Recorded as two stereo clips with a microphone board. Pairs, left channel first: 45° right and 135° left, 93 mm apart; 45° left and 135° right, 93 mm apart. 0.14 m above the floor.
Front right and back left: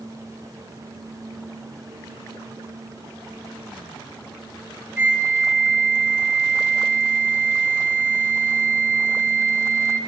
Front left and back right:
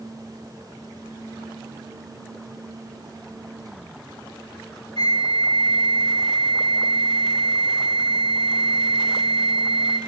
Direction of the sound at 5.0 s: 65° left.